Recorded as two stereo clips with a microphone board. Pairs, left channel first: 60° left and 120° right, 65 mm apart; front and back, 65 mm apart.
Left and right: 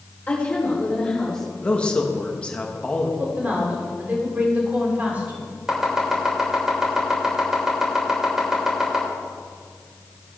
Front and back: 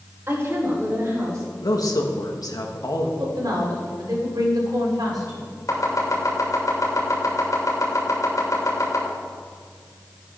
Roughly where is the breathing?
No breathing in this recording.